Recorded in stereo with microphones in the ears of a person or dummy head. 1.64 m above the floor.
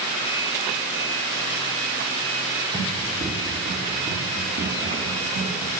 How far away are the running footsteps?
About 3.5 m.